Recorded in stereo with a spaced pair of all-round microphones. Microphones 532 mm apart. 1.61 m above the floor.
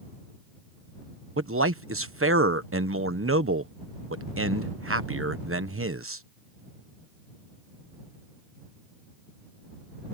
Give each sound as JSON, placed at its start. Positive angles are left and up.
{"t": 1.4, "sound": "a man speaking", "side_deg": -25}